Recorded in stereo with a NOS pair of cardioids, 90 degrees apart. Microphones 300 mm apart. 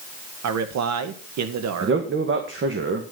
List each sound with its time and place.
0.4 s a man speaking: 65° right, 1.8 m
1.8 s a man speaking: 40° right, 1.9 m